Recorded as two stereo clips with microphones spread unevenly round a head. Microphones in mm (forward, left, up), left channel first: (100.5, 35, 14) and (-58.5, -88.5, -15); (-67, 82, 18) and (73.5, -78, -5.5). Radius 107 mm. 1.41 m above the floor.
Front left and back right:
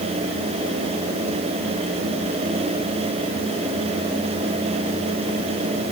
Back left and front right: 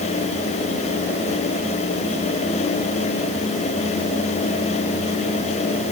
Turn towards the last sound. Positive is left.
No sound to turn to.